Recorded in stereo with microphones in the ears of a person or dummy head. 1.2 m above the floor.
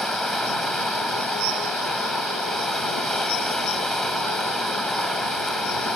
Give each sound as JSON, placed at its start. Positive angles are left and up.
{"t": 0.0, "sound": "running water", "side_deg": 5}